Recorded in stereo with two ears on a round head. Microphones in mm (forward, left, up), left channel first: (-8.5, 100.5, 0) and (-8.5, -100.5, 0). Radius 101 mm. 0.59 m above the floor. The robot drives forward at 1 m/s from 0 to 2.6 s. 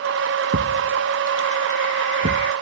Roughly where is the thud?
Right.